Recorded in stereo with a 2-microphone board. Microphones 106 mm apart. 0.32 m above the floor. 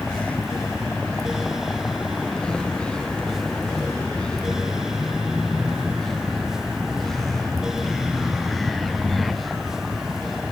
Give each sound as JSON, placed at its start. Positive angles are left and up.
{"t": 0.0, "sound": "a vehicle", "side_deg": 10}